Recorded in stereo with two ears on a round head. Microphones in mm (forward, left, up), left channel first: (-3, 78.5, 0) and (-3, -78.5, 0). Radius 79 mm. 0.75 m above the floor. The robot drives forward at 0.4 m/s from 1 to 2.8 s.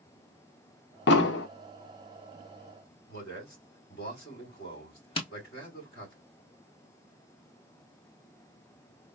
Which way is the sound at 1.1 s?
65° left (ahead or behind).